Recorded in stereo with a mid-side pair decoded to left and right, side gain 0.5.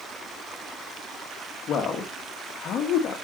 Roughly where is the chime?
I don't hear a chime.